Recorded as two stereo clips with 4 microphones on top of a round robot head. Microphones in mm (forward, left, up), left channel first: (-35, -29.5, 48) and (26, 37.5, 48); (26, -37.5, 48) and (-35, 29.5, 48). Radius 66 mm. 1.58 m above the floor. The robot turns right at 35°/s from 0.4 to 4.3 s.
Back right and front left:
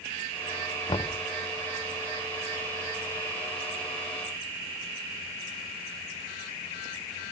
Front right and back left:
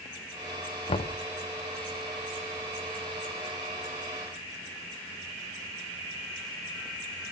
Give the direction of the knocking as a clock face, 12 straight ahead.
3 o'clock.